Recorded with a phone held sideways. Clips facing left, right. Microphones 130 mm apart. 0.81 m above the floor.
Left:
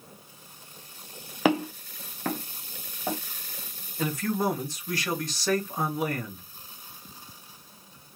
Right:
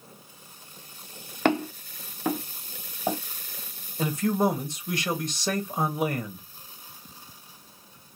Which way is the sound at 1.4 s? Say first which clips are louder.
Even; 5° left (ahead or behind).